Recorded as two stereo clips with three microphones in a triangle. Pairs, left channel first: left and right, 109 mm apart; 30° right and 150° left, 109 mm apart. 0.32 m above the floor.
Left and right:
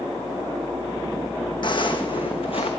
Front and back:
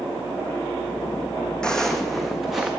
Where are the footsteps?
50° left, 1.0 m; by 2.7 s 65° left, 1.7 m.